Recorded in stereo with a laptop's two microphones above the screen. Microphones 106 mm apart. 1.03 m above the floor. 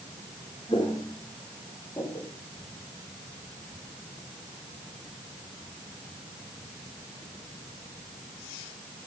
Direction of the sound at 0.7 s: 45° left (ahead or behind).